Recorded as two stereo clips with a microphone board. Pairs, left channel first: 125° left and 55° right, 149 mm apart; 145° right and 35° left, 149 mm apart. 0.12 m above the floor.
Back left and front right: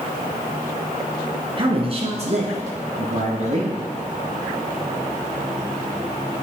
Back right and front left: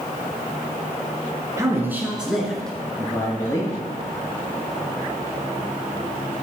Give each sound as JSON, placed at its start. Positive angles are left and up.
{"t": 1.6, "sound": "a man speaking", "azimuth_deg": -25, "distance_m": 1.6}